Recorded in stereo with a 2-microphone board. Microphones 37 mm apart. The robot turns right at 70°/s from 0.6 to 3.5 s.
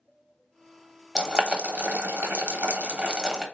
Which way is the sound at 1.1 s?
15° right (ahead or behind).